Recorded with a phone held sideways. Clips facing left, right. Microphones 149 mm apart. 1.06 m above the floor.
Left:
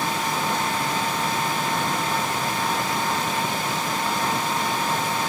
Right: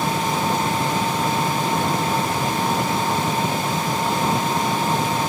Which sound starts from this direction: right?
An engine running, at 0.0 s.